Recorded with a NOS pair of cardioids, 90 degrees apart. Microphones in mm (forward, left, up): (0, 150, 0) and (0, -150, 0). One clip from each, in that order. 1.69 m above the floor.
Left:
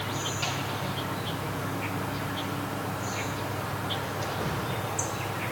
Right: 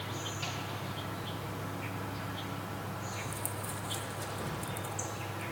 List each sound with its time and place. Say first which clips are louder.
0.0 s an insect: left 7 dB; 45° left, 1.1 m